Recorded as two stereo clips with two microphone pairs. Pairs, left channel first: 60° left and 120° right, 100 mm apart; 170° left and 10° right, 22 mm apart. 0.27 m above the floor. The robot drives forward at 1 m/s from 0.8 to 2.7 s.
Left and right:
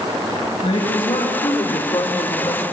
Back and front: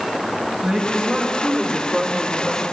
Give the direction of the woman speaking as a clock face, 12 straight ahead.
11 o'clock.